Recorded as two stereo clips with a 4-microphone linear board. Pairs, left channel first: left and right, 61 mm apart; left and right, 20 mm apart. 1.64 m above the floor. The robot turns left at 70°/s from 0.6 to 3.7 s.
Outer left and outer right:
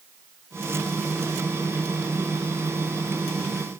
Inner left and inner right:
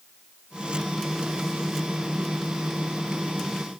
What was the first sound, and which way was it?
Only background noise.